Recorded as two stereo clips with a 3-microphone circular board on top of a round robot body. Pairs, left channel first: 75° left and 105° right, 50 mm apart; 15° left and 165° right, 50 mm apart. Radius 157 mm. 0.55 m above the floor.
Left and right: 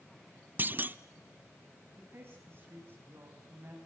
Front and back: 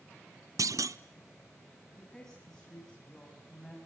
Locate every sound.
0.6 s a clunk: 160° right, 0.6 m
2.0 s a woman speaking: 65° right, 4.5 m